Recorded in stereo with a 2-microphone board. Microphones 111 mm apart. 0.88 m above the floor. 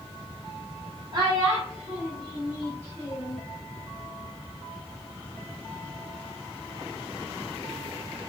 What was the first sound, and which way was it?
A child speaking, 40° right (ahead or behind).